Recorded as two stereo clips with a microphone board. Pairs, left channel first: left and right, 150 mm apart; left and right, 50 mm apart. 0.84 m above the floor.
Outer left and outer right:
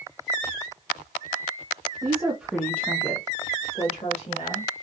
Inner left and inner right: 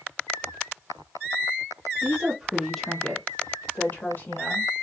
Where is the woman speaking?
30° right (ahead or behind), 0.6 m; by 4.7 s 50° left (ahead or behind), 1.4 m.